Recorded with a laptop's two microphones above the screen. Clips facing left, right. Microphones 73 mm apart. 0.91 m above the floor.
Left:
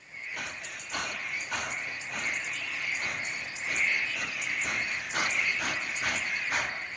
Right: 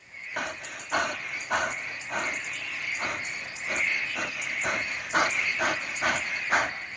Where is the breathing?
60° right (ahead or behind), 1.4 m.